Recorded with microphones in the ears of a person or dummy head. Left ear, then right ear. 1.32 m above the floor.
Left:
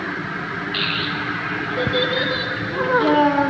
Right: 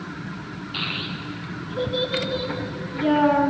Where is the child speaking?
5° right (ahead or behind), 0.7 m.